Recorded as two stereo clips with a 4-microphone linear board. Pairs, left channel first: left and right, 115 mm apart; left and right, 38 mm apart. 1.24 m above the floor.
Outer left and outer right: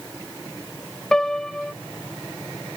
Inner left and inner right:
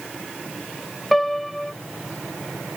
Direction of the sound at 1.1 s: 5° left (ahead or behind).